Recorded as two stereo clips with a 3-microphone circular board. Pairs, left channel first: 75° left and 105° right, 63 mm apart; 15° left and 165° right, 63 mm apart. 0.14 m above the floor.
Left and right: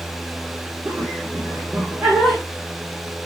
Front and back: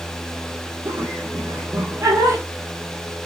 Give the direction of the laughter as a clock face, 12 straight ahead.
6 o'clock.